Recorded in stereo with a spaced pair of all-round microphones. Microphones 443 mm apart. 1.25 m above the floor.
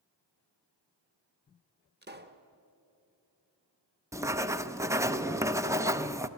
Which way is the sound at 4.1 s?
5° right (ahead or behind).